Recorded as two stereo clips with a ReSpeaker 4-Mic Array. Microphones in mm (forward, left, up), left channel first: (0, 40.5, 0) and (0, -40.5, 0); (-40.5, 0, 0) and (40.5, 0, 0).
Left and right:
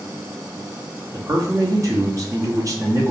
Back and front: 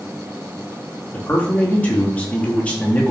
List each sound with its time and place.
1.1 s a man speaking: 110° right, 0.9 m